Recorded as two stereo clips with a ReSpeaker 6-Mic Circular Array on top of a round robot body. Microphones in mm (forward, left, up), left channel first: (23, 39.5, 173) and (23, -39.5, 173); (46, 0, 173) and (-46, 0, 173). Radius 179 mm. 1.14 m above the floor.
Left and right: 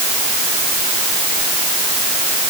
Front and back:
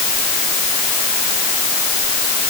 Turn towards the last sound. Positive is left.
No sound to turn to.